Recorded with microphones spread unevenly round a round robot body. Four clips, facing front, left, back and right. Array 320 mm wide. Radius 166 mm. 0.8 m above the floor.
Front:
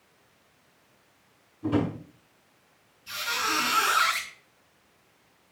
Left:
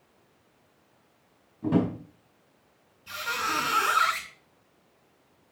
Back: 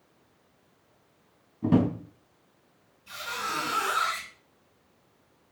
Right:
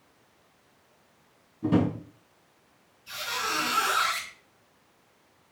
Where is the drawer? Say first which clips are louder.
Right 1 dB, back 3 dB; 170° right, 4 m.